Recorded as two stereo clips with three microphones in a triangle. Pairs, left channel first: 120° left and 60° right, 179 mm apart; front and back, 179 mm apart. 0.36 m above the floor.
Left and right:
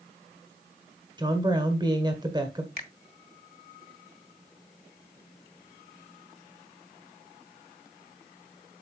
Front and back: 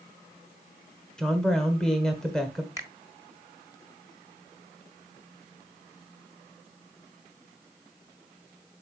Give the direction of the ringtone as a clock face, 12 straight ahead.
No ringtone in this recording.